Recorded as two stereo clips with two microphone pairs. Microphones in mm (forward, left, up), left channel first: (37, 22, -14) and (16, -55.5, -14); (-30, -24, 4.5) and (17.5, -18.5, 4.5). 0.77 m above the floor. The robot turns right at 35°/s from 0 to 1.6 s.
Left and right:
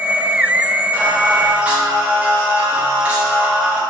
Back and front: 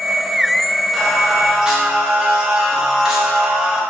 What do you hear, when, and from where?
0.9 s singing: 80° right, 0.8 m; by 3.8 s 55° right, 0.8 m